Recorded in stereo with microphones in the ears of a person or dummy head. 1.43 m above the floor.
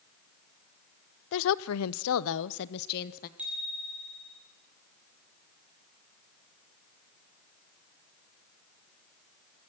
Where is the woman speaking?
60° left (ahead or behind), 0.7 m; by 3.3 s 50° left (ahead or behind), 1.1 m.